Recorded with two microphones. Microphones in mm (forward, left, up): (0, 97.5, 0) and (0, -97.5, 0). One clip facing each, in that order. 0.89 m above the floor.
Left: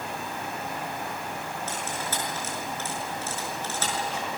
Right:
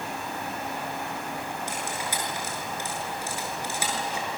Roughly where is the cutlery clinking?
Centre.